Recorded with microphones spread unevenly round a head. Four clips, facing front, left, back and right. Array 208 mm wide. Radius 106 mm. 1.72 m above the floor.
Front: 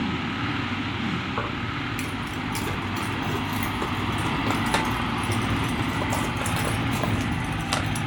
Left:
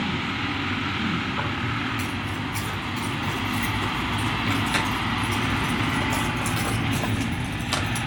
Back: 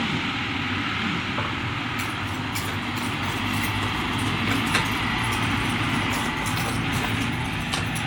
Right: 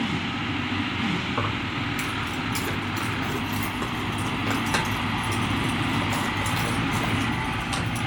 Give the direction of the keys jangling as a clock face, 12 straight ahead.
2 o'clock.